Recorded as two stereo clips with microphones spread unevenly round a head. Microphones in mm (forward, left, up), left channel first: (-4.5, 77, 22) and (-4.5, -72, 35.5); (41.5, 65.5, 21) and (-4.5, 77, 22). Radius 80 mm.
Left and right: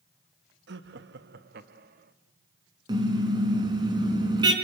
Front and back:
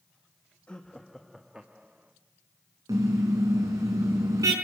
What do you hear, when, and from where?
0.7 s laughter: 95° right, 1.3 m; by 2.1 s 120° right, 2 m
2.9 s a car horn: 155° right, 4.5 m